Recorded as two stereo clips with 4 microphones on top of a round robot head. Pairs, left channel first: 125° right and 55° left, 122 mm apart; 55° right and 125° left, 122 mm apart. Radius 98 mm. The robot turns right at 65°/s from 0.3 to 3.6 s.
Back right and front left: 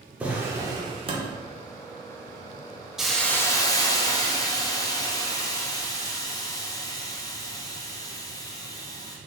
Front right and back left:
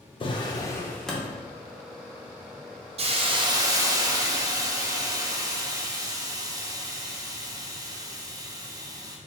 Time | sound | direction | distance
0.2 | a drawer | 20° right | 0.7 m
3.0 | a hiss | 140° left | 0.5 m